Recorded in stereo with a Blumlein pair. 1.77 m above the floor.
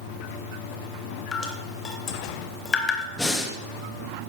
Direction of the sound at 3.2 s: 5° left.